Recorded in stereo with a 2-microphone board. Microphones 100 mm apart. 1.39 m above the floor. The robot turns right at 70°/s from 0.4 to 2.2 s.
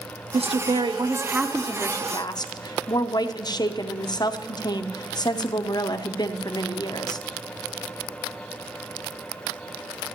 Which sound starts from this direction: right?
A woman speaking, at 0.3 s.